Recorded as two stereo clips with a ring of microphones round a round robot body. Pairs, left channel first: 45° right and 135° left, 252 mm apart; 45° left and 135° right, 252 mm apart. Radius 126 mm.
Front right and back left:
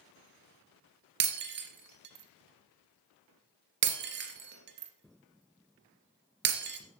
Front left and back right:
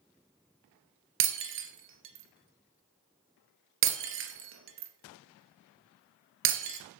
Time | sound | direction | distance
1.2 | breaking glass | 175° right | 2.5 m